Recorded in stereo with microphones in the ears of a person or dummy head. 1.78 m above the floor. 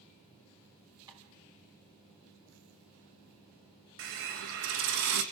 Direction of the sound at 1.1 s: 20° right (ahead or behind).